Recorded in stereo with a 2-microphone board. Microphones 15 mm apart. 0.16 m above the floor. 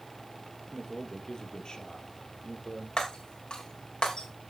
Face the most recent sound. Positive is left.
turn(degrees=65)  # may be behind; listen again after turning